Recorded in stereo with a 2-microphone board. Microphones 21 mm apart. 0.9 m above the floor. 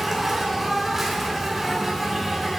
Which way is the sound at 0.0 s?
10° right (ahead or behind).